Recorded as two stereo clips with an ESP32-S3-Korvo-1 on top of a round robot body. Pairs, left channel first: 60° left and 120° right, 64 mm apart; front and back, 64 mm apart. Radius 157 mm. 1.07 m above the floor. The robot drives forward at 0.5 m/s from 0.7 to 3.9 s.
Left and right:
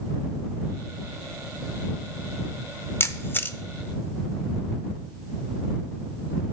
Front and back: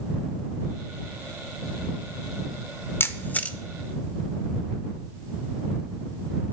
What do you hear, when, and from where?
3.0 s a camera shutter: 30° left, 0.8 m; by 3.6 s 60° left, 0.7 m